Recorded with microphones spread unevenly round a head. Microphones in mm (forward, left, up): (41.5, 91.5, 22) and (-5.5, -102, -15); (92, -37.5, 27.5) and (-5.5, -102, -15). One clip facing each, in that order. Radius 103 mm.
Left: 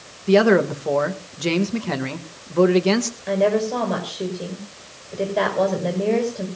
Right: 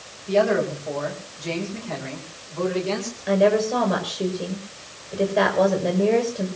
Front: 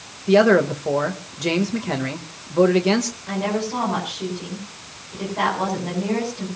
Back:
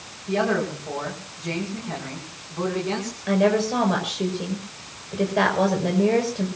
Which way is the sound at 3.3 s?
170° left.